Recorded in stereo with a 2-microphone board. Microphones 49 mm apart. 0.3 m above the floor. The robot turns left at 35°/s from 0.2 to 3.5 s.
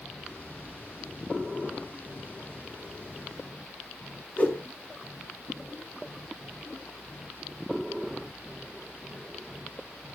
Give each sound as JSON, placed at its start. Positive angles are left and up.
{"t": 4.4, "sound": "a whoosh", "side_deg": 35, "distance_m": 2.5}